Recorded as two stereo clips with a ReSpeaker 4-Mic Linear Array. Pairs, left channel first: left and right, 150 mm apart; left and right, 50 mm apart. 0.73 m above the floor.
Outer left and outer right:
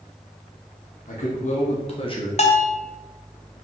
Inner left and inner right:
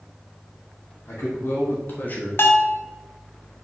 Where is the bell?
45° left (ahead or behind), 0.9 m.